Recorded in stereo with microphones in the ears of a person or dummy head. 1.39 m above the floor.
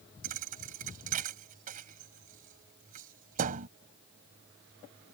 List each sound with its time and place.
0.2 s a thud: 40° right (ahead or behind)